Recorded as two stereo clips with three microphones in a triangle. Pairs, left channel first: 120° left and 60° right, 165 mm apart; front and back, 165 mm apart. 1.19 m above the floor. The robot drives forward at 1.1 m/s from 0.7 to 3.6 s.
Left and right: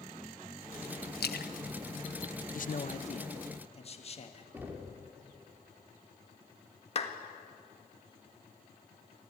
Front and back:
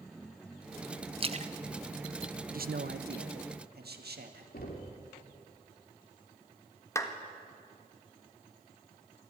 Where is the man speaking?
150° left, 0.6 m; by 4.4 s 170° left, 1.7 m.